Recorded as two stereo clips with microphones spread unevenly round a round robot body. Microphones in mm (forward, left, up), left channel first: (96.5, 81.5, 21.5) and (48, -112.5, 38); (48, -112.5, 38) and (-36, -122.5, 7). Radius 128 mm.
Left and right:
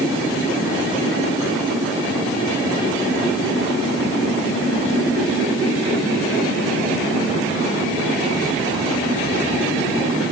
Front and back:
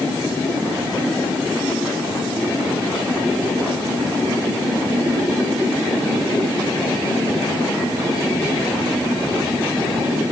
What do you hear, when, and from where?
Only background noise.